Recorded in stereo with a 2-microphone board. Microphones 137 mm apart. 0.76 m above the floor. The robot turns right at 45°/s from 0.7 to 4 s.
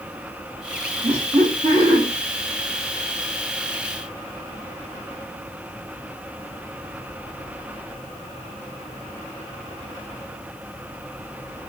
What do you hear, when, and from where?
1.0 s laughter: 70° right, 1.4 m; by 2.0 s 25° right, 1.4 m